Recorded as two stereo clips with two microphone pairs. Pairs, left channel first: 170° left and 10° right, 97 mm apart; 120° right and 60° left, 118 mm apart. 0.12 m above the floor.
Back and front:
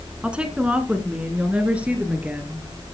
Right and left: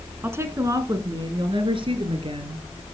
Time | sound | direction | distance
0.2 | a woman speaking | 45° left | 1.6 m